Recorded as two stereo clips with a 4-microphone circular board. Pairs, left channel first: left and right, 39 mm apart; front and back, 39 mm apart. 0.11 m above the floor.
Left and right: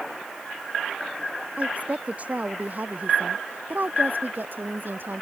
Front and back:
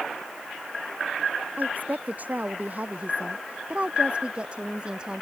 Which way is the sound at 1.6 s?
140° right.